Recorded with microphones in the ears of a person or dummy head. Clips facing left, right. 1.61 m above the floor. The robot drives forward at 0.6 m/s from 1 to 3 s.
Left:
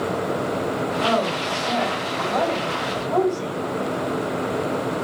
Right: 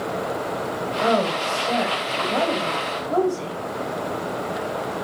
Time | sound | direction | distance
1.0 | a woman speaking | 25° right (ahead or behind) | 4.5 m